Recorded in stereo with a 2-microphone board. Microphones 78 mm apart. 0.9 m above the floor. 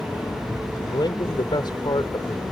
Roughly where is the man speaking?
Left.